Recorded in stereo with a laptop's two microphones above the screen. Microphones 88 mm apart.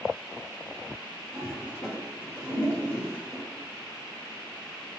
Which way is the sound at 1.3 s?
30° left (ahead or behind).